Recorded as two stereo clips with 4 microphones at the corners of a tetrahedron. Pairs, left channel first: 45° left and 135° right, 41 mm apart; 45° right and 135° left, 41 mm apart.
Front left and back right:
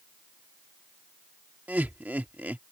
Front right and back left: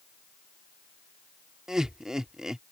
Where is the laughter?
155° right.